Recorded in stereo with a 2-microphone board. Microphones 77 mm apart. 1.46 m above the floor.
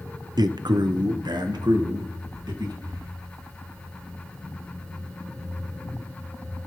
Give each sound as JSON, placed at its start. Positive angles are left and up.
{"t": 0.4, "sound": "a man speaking", "side_deg": -75, "distance_m": 0.5}
{"t": 2.8, "sound": "breathing", "side_deg": -75, "distance_m": 8.0}